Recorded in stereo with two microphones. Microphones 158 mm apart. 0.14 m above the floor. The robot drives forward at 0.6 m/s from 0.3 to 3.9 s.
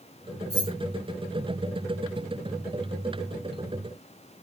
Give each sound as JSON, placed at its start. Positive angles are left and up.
{"t": 0.5, "sound": "keys jangling", "side_deg": -25, "distance_m": 1.9}